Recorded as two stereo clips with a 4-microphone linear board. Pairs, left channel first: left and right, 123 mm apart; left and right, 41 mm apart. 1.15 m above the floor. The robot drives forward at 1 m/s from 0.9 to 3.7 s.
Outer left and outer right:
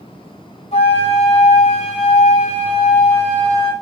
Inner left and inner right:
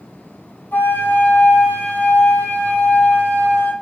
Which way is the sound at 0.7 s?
60° left (ahead or behind).